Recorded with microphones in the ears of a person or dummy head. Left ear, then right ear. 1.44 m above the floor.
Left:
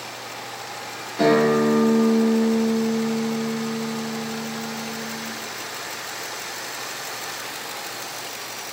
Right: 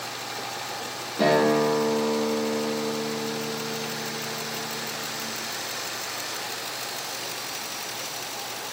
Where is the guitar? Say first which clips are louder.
Left 3 dB; 15° left (ahead or behind), 2.5 m.